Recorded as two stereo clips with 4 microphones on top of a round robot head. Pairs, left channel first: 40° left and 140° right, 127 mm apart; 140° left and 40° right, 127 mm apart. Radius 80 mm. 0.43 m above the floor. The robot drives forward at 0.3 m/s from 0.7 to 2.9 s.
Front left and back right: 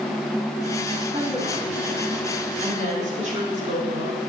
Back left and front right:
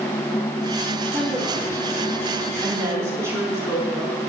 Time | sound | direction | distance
1.1 | a woman speaking | 100° right | 4 m